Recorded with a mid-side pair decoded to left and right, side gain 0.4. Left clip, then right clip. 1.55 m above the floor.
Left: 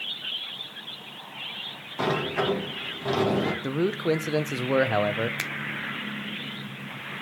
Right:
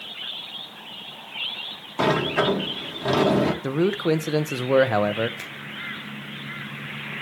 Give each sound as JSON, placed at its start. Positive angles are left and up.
{"t": 2.0, "sound": "a sliding door", "azimuth_deg": -40, "distance_m": 1.8}
{"t": 3.6, "sound": "a man speaking", "azimuth_deg": -20, "distance_m": 0.9}
{"t": 5.4, "sound": "a finger snap", "azimuth_deg": 65, "distance_m": 0.9}